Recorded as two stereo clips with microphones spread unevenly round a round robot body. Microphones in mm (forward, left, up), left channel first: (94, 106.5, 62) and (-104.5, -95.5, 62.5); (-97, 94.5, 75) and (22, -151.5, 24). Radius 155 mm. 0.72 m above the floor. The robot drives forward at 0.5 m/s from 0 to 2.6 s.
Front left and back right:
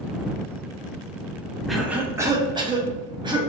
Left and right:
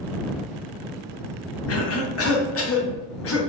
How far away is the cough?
About 1.0 m.